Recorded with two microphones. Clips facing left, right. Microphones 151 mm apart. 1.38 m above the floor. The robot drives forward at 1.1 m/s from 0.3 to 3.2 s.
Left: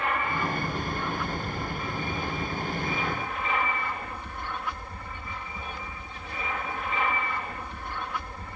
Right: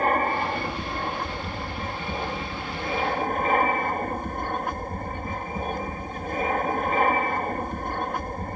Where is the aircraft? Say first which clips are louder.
Right 6 dB; 45° right (ahead or behind).